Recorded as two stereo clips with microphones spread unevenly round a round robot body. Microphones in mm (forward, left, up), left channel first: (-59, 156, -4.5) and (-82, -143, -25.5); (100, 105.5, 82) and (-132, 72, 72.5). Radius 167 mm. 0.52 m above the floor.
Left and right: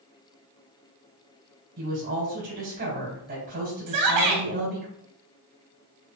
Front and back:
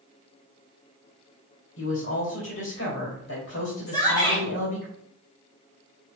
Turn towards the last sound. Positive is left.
turn(degrees=-70)